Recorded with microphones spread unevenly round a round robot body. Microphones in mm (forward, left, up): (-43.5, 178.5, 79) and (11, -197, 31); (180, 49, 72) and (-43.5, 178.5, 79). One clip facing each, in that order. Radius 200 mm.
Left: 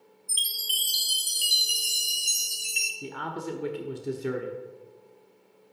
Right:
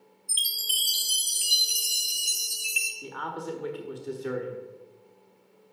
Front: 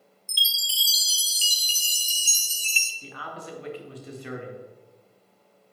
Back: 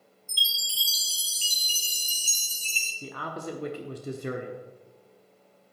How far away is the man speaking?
About 1.5 m.